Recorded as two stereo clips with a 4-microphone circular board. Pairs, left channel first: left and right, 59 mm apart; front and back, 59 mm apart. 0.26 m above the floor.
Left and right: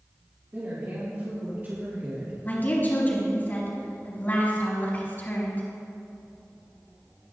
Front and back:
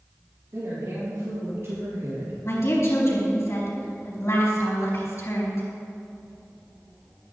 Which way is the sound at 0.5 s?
145° right.